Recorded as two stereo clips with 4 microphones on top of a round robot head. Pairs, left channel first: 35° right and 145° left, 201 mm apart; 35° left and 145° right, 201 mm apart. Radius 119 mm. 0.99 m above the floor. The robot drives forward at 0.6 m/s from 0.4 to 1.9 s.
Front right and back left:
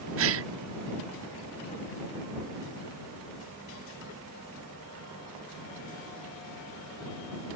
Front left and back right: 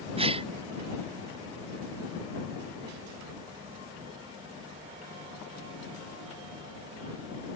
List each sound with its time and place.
0.2 s a gasp: 150° left